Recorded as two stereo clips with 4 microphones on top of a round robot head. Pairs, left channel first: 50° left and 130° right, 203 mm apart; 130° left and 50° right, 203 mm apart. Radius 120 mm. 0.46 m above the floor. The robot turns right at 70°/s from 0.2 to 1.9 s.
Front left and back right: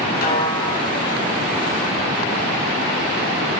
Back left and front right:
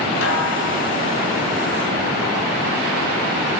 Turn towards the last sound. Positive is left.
turn(degrees=-140)